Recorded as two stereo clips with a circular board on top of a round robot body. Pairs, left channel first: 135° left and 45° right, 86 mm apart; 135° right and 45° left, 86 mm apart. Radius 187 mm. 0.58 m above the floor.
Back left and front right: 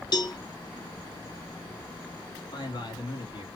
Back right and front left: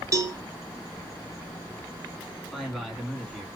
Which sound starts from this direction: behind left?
A man speaking, at 2.5 s.